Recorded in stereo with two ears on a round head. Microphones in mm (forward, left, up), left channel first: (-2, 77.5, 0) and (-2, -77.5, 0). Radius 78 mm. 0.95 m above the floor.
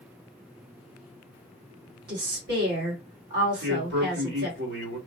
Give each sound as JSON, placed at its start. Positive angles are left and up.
{"t": 2.1, "sound": "a woman speaking", "side_deg": -60, "distance_m": 2.0}
{"t": 3.6, "sound": "a man speaking", "side_deg": -65, "distance_m": 2.0}